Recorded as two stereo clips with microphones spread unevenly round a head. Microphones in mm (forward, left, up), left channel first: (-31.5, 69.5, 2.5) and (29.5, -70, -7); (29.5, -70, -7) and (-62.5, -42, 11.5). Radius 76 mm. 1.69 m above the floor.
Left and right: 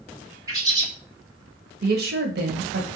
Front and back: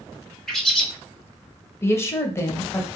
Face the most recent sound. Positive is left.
turn(degrees=-85)